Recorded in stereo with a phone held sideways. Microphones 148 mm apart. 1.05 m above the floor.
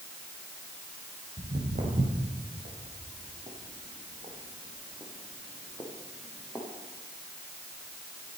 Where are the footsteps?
70° right (ahead or behind), 3.5 m; by 6.7 s 10° right (ahead or behind), 3.5 m.